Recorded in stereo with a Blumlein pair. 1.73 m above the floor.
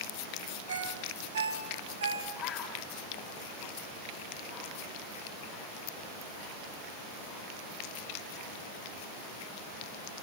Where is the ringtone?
70° right, 3.5 m.